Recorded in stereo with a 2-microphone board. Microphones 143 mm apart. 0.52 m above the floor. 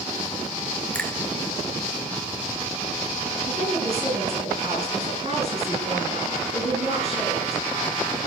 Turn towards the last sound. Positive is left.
turn(degrees=-45)  # may be behind; listen again after turning